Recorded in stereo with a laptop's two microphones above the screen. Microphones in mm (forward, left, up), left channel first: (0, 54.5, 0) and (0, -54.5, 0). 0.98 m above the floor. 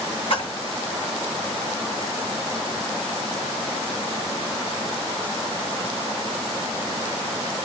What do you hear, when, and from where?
0.3 s a splash: 60° left (ahead or behind), 2.5 m